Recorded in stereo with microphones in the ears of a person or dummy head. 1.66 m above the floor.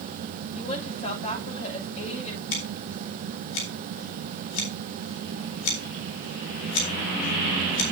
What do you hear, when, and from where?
0.6 s a woman speaking: 35° left (ahead or behind), 8 m
2.5 s scissors: 75° left (ahead or behind), 4 m